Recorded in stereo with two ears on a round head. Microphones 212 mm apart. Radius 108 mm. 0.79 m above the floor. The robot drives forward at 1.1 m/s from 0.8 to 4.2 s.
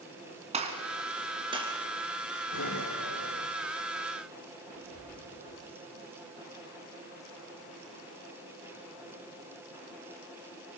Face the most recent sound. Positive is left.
turn(degrees=60)  # may be behind; listen again after turning